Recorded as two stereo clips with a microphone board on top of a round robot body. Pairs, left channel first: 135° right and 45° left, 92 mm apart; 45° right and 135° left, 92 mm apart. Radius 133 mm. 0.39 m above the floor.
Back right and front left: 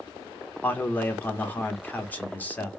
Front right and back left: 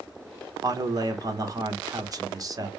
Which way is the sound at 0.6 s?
160° left.